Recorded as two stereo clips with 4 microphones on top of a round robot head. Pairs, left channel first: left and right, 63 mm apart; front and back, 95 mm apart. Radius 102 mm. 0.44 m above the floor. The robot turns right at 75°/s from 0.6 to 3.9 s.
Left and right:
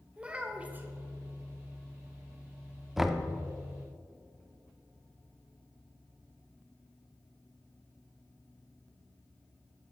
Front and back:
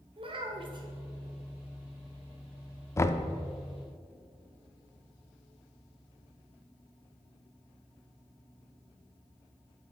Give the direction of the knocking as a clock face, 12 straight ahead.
12 o'clock.